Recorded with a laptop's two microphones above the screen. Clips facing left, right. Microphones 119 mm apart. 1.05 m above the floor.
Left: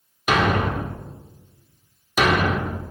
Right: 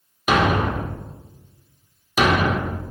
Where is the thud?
10° right (ahead or behind), 0.9 m.